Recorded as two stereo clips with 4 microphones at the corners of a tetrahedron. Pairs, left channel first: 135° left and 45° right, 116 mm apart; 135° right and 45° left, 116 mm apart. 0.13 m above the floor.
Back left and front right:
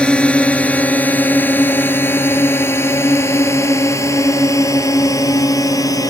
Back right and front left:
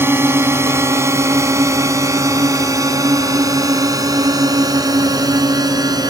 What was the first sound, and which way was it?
A drone, 70° left.